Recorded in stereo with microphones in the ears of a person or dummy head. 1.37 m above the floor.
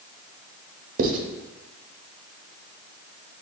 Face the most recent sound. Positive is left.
turn(degrees=-45)  # may be behind; listen again after turning